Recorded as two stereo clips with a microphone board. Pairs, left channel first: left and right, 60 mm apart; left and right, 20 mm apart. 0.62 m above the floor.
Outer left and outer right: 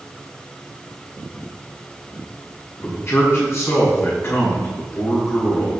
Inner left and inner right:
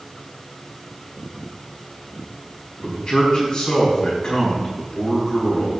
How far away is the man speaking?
About 5.5 m.